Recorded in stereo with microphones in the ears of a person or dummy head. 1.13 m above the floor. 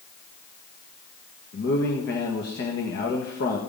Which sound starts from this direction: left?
A man speaking, at 1.5 s.